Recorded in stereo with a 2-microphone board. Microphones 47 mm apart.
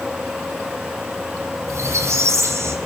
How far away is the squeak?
About 4.5 m.